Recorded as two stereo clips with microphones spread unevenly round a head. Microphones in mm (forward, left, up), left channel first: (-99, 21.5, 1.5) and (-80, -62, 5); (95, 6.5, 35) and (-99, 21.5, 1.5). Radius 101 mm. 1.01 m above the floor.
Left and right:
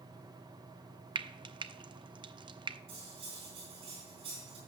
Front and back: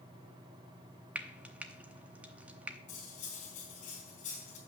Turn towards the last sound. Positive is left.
turn(degrees=-60)